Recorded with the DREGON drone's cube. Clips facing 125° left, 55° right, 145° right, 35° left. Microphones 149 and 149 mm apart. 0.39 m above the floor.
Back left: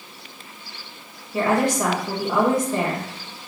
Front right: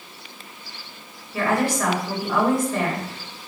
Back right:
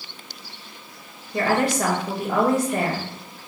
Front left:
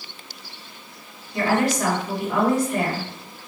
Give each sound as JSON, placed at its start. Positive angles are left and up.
{"t": 1.3, "sound": "a woman speaking", "azimuth_deg": -170, "distance_m": 1.9}